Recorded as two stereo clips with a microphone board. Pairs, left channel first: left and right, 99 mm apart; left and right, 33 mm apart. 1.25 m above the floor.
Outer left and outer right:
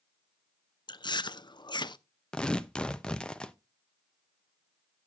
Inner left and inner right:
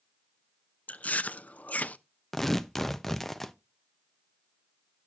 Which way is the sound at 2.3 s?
10° left (ahead or behind).